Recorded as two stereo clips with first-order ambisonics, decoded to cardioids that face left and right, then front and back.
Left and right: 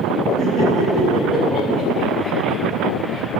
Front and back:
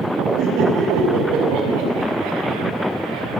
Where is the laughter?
155° right, 5.5 m.